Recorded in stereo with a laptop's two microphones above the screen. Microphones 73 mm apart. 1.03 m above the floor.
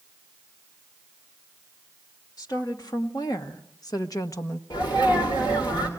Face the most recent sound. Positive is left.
turn(degrees=80)